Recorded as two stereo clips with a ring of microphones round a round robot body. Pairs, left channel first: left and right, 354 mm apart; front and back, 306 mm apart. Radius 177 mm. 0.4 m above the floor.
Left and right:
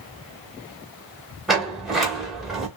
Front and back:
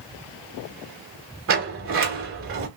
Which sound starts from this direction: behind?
A sliding door, at 1.5 s.